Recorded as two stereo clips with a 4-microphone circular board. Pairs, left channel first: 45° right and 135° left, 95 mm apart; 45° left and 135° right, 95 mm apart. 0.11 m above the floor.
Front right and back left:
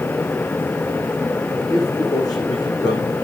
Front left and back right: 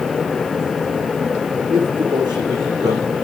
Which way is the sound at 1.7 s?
95° right.